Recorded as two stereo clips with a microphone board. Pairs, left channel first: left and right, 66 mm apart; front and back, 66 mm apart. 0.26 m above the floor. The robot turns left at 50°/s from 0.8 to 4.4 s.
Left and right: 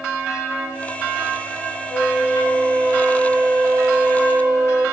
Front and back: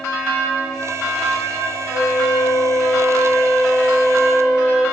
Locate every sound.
1.9 s a flute: 10° left, 1.8 m; by 4.8 s 115° right, 1.8 m